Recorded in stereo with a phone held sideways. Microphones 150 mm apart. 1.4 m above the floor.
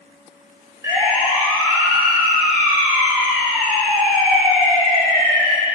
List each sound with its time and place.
0.8 s a siren: 20° right (ahead or behind), 5 m; by 5.5 s centre (ahead or behind), 7.5 m